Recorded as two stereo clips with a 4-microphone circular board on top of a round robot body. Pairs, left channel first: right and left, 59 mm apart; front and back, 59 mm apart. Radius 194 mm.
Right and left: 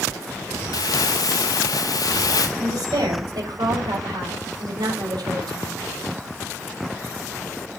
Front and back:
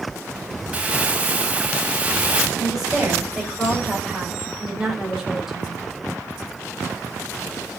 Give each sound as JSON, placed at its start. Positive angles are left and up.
{"t": 0.7, "sound": "crumpling", "azimuth_deg": -110, "distance_m": 0.9}
{"t": 2.6, "sound": "a woman speaking", "azimuth_deg": 90, "distance_m": 6.0}